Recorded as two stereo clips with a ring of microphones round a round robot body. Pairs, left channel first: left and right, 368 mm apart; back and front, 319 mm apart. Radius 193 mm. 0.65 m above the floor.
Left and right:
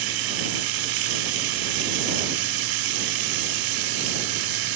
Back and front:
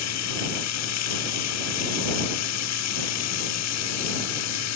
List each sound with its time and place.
0.0 s running water: 125° right